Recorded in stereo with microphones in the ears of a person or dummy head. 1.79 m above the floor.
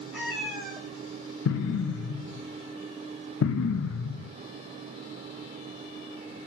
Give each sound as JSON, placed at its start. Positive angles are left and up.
{"t": 0.1, "sound": "a cat meowing", "side_deg": -10, "distance_m": 2.5}
{"t": 1.4, "sound": "an explosion", "side_deg": 80, "distance_m": 0.5}